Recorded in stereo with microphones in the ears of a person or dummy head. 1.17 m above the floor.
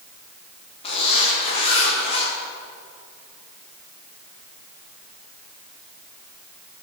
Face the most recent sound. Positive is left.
turn(degrees=30)  # may be behind; listen again after turning